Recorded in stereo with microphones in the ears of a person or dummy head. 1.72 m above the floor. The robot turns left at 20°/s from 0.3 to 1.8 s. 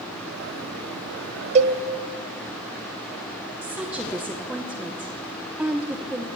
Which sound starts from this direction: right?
A cowbell, at 1.6 s.